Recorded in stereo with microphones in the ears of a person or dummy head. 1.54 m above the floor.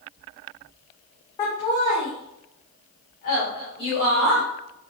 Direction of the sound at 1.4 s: 35° left (ahead or behind).